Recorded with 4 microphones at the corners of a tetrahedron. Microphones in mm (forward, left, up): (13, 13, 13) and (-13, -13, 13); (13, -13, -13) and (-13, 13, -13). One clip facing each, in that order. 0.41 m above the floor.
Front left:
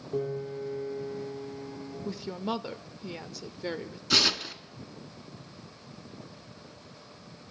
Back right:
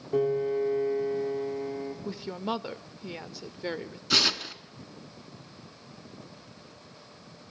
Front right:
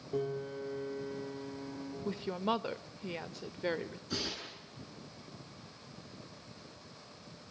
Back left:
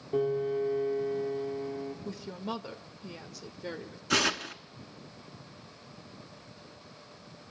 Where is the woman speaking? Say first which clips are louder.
Front left 2 dB, front right 4 dB; 65° right, 1.1 m.